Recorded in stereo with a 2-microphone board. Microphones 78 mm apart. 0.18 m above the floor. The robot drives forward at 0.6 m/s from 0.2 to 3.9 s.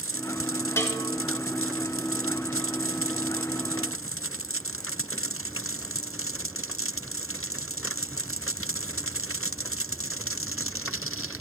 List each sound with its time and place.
0.8 s a bell: 35° left (ahead or behind), 1.1 m; by 1.1 s 40° left (ahead or behind), 1.0 m